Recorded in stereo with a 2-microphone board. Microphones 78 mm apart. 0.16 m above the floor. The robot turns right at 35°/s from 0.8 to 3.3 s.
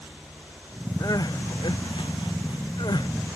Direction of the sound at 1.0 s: 50° left.